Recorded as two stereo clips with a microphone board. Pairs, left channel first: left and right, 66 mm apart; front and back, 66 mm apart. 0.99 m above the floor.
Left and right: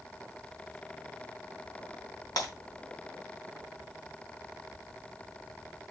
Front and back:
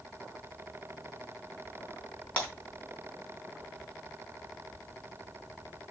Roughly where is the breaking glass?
Left.